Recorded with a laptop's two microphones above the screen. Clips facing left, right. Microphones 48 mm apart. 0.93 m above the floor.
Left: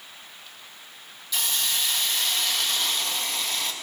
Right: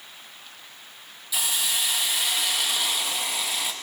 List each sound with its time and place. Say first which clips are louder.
1.3 s a hiss: even; 10° right (ahead or behind), 1.1 m